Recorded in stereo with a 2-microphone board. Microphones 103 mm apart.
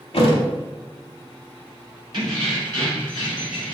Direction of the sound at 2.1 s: 45° right (ahead or behind).